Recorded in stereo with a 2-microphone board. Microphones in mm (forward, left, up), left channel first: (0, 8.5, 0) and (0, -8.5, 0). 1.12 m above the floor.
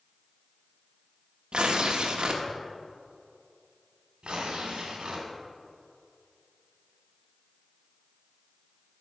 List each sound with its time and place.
1.5 s tearing paper: 55° right (ahead or behind), 1.1 m
4.2 s tearing paper: 55° right (ahead or behind), 2.5 m